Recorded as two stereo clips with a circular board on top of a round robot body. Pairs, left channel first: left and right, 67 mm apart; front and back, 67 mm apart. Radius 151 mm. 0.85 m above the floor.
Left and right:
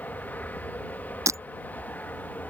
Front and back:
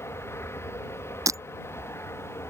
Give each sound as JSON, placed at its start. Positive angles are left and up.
{"t": 0.0, "sound": "an aircraft", "azimuth_deg": 35}
{"t": 1.3, "sound": "breaking glass", "azimuth_deg": -135}